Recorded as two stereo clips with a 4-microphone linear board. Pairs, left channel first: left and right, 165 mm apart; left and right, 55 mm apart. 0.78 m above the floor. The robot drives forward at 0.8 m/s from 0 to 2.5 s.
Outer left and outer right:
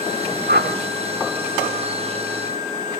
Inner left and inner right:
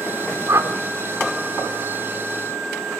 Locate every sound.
0.5 s a whoosh: 70° right (ahead or behind), 1.3 m; by 0.7 s 80° right, 1.3 m